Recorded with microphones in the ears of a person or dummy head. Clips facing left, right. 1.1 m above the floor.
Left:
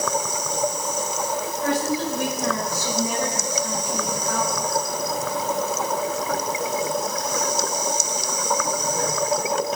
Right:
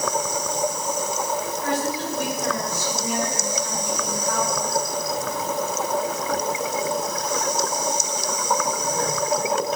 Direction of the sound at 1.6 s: 70° left (ahead or behind).